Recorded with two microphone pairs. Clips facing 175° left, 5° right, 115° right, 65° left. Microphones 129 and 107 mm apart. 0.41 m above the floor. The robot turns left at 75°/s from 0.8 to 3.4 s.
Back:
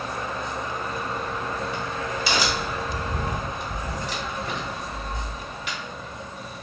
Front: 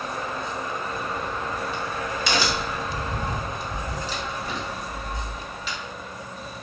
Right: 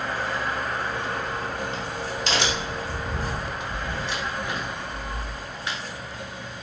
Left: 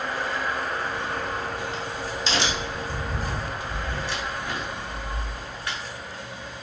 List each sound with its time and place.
0.9 s a crack: 5° left, 1.7 m; by 5.8 s 175° left, 1.7 m